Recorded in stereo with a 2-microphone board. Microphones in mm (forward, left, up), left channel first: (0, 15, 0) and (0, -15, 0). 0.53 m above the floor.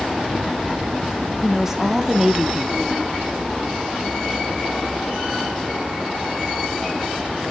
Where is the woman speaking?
20° right (ahead or behind), 0.7 m.